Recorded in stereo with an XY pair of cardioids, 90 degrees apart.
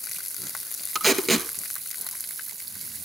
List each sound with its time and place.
0.9 s tape being pulled: 30° right, 1.9 m